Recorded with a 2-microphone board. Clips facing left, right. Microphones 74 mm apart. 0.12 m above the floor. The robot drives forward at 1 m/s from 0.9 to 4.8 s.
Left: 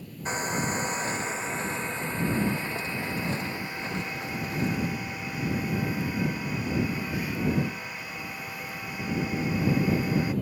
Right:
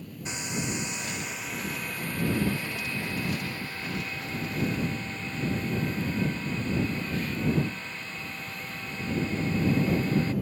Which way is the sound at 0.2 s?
40° left (ahead or behind).